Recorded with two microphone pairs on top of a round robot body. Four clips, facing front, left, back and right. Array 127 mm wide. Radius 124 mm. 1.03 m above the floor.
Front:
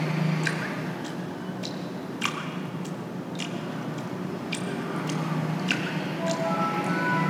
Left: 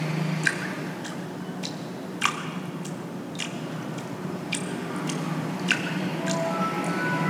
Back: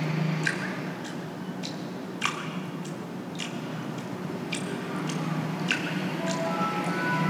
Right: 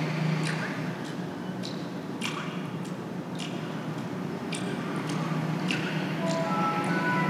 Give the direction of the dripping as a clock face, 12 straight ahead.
9 o'clock.